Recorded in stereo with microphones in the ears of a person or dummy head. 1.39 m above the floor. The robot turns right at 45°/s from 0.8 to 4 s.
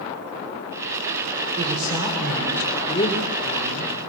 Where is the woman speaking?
35° right, 5 m; by 4.0 s 75° left, 5 m.